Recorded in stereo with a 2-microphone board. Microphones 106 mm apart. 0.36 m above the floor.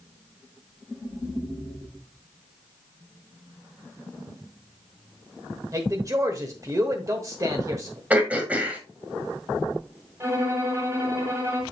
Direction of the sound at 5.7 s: 30° right (ahead or behind).